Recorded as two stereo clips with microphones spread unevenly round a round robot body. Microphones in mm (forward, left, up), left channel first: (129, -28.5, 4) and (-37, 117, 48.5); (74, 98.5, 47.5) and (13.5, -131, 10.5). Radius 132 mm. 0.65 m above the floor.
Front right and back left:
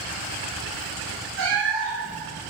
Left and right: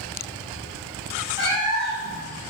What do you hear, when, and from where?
1.4 s a cat meowing: straight behind, 1.6 m